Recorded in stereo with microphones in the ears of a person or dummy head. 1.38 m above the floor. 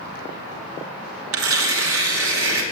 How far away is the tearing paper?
About 2.5 m.